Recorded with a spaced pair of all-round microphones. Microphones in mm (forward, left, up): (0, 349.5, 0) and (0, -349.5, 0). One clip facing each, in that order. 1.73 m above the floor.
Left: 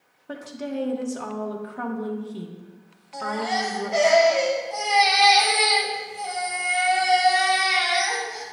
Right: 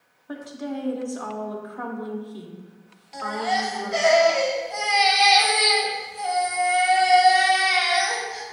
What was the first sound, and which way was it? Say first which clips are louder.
A woman speaking: even; 55° left (ahead or behind).